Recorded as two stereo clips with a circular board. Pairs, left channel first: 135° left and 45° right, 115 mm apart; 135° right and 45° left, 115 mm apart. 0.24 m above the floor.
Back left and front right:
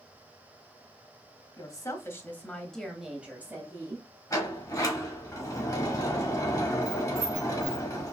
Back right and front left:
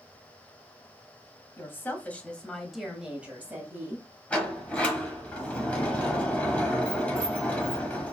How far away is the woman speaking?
About 1.2 m.